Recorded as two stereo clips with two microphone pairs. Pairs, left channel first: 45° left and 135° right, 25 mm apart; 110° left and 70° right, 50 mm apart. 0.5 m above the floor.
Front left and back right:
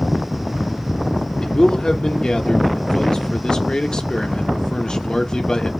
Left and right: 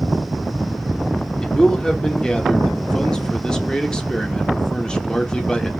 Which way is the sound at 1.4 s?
40° left.